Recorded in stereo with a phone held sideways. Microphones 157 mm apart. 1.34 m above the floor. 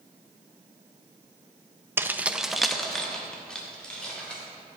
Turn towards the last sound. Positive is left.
turn(degrees=5)  # may be behind; listen again after turning